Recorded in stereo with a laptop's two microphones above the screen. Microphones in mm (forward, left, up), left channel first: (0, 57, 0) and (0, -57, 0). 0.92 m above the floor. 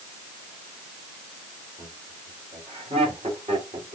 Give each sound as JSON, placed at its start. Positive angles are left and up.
{"t": 1.8, "sound": "laughter", "side_deg": -65, "distance_m": 3.0}